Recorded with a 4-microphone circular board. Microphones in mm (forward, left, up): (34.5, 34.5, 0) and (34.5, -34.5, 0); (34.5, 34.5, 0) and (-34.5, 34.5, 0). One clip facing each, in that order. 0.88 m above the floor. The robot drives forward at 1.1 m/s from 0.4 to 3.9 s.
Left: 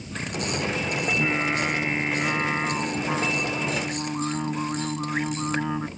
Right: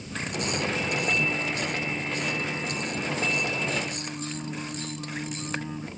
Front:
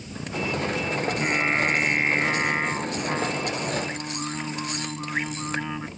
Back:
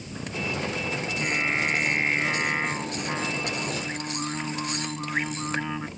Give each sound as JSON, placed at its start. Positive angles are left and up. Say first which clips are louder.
{"t": 1.0, "sound": "singing", "louder": "left 3 dB, front 4 dB", "azimuth_deg": 65}